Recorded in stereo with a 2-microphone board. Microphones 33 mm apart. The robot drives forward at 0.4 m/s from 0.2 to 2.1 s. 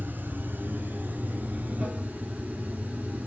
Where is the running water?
65° right (ahead or behind), 0.8 m; by 3.3 s 40° right (ahead or behind), 1.1 m.